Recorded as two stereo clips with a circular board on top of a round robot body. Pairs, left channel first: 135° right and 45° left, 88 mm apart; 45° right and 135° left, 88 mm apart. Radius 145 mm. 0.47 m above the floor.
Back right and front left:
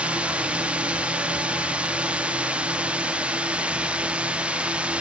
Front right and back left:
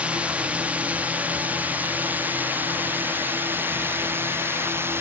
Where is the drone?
90° left; by 5.0 s 110° left.